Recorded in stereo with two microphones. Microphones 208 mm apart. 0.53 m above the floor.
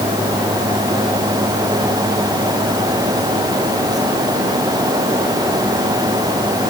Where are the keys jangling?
No keys jangling in this recording.